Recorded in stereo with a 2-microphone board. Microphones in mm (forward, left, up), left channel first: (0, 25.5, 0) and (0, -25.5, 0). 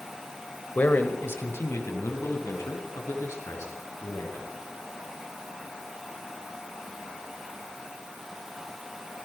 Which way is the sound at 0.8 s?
35° left (ahead or behind).